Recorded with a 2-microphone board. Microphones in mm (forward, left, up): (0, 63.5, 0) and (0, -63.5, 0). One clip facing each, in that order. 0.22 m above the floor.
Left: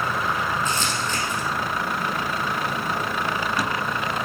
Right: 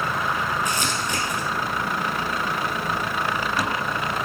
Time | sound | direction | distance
0.7 | crumpling | 15° right (ahead or behind) | 3 m